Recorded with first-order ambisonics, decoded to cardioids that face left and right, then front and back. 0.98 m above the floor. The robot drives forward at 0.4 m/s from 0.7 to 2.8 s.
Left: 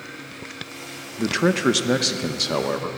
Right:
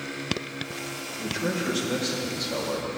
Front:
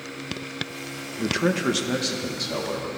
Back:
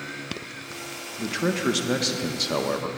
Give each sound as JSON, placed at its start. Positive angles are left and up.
{"t": 1.2, "sound": "a man speaking", "azimuth_deg": 75, "distance_m": 0.9}